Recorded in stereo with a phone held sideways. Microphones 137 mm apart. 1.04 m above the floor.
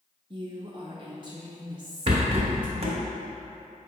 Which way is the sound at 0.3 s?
35° right (ahead or behind).